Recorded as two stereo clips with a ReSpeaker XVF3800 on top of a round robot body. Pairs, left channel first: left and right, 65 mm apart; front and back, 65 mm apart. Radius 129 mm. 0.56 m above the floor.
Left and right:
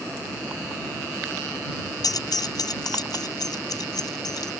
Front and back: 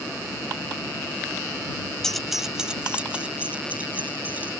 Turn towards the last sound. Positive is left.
turn(degrees=110)